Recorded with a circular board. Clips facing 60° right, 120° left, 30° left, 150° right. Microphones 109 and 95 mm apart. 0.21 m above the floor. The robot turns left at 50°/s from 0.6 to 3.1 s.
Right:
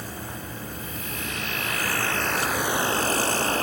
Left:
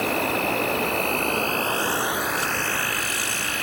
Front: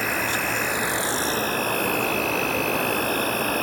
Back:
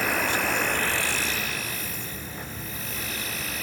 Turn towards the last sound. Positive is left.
turn(degrees=-5)